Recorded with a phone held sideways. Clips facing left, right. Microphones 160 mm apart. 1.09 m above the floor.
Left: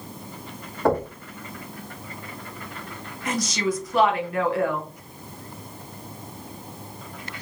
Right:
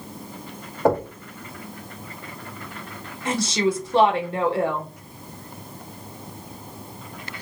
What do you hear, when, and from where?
0.8 s knocking: 15° right (ahead or behind), 1.6 m
3.2 s a woman speaking: 25° right (ahead or behind), 0.9 m